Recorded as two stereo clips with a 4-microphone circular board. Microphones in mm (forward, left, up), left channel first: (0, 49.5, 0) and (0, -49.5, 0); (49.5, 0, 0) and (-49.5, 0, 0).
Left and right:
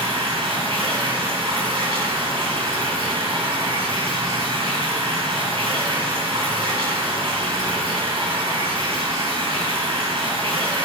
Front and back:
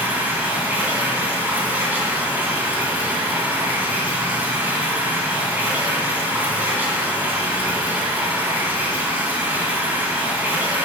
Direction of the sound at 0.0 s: 110° right.